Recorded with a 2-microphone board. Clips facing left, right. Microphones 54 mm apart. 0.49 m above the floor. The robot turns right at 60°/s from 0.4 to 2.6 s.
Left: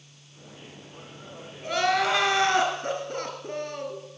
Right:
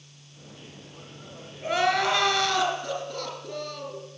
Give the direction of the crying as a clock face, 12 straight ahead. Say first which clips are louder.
Even; 1 o'clock.